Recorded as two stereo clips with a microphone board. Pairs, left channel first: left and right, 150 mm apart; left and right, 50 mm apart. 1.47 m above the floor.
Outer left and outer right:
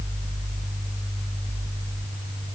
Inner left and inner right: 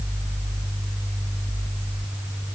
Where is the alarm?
I don't hear an alarm.